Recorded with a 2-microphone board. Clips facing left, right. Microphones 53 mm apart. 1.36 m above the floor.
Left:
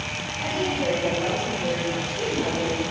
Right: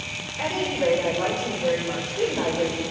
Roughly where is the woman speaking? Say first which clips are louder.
Right 2 dB; right.